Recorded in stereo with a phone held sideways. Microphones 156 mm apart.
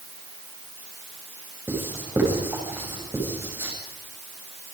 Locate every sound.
1.7 s writing: 15° right (ahead or behind), 7.5 m